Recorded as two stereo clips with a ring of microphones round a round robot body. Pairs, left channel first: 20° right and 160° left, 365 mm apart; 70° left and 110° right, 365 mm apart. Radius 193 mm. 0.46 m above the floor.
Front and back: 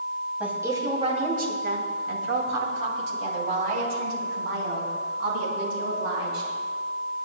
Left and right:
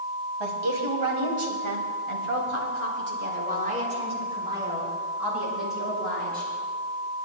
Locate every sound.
0.4 s a woman speaking: 115° right, 3.5 m; by 6.5 s 155° left, 6.5 m